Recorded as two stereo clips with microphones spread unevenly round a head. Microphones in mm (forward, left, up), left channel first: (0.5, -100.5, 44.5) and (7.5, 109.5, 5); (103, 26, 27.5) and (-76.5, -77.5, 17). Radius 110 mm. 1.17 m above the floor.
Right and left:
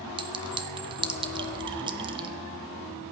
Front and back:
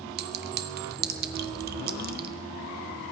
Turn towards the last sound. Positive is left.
turn(degrees=160)